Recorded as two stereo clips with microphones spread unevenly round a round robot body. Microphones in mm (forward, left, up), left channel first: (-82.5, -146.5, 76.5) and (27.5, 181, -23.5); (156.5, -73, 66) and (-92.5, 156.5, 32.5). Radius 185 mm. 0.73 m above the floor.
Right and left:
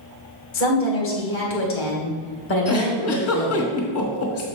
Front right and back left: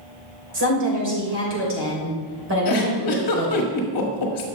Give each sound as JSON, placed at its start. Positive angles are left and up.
{"t": 0.5, "sound": "a woman speaking", "azimuth_deg": -165, "distance_m": 2.5}
{"t": 2.6, "sound": "a giggle", "azimuth_deg": -50, "distance_m": 1.4}